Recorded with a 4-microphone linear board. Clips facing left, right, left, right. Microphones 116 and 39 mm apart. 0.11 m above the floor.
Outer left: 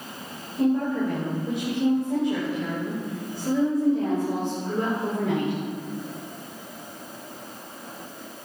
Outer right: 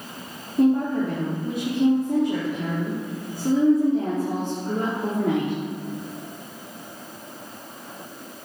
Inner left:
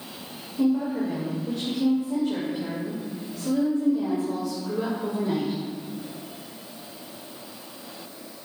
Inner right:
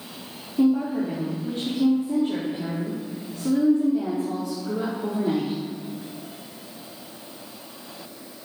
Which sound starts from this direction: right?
A woman speaking, at 0.6 s.